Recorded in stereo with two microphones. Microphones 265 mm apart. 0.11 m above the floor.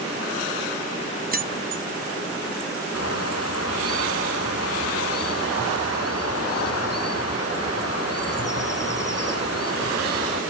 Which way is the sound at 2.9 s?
65° left (ahead or behind).